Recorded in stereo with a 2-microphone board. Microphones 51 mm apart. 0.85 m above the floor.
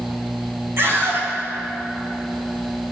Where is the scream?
50° right (ahead or behind), 6.5 m.